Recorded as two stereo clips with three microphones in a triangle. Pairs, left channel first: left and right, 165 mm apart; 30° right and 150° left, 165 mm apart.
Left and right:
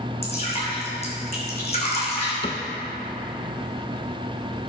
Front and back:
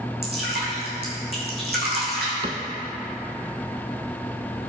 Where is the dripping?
140° left, 3.5 m.